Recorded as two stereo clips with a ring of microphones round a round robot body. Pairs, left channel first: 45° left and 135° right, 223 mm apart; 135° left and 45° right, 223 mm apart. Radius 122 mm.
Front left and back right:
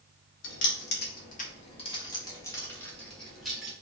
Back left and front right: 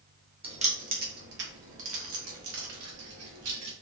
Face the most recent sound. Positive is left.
turn(degrees=-50)